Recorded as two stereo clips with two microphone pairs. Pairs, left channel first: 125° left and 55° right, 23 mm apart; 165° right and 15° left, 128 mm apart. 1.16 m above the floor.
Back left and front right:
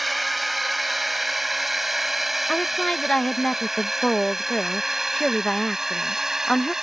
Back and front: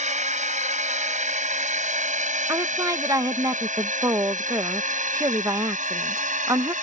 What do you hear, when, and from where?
0.0 s a drone: 35° left; by 6.8 s 15° left
2.5 s a woman speaking: 75° left